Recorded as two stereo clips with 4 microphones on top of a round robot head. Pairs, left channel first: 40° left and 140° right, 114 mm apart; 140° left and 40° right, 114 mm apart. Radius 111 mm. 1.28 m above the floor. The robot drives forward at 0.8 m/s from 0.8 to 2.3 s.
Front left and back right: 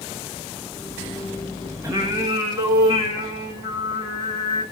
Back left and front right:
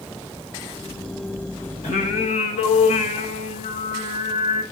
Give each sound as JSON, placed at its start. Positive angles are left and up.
{"t": 1.8, "sound": "singing", "azimuth_deg": 155, "distance_m": 1.4}